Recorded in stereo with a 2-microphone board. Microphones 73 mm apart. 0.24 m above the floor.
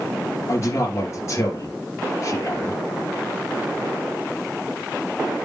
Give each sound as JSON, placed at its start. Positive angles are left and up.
{"t": 0.5, "sound": "a man speaking", "side_deg": 40, "distance_m": 4.0}